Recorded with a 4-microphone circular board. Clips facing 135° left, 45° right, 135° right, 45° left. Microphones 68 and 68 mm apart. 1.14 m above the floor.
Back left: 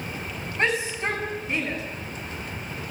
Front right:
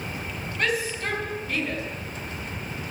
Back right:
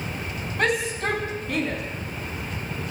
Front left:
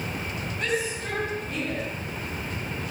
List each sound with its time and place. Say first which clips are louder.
0.6 s a shout: back left 2 dB, back right 5 dB; 160° right, 8.5 m; by 1.8 s 155° right, 9 m